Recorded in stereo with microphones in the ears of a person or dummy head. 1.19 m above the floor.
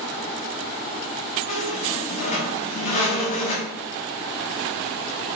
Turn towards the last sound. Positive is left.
turn(degrees=40)  # may be behind; listen again after turning